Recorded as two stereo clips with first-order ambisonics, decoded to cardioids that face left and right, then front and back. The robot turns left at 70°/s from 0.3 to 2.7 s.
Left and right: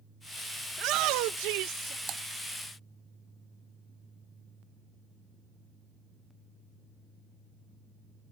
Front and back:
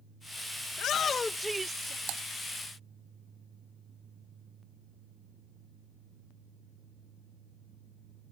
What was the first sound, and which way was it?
A shout, 40° right.